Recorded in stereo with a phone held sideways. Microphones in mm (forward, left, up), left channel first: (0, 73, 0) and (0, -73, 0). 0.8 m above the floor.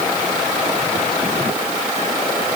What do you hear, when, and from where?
Only background noise.